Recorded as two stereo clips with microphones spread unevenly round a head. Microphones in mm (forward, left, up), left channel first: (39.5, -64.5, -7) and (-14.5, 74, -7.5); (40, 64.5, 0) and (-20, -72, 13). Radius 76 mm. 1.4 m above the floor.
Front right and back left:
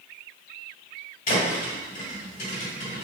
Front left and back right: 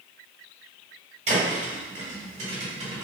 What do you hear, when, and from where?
1.3 s a thud: 85° right, 1.7 m